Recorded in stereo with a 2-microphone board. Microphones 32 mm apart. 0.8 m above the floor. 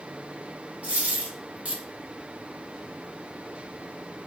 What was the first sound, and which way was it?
A dropped coin, 60° right (ahead or behind).